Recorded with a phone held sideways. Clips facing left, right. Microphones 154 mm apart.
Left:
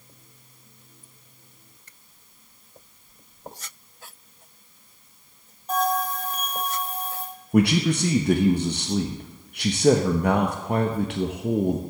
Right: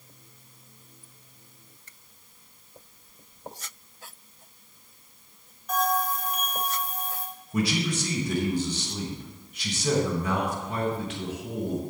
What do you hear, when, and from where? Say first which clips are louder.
5.7 s a bell: left 2 dB; 30° left (ahead or behind), 3 m
7.5 s a man speaking: left 7 dB; 65° left (ahead or behind), 0.9 m